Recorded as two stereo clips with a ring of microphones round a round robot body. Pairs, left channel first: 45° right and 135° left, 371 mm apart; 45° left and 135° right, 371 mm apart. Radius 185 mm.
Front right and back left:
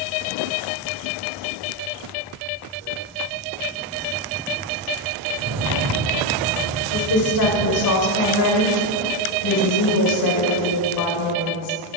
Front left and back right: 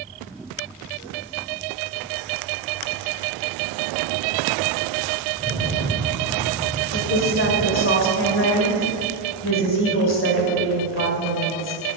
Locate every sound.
5.4 s a rattle: 150° left, 2.0 m
6.9 s a woman speaking: 10° right, 2 m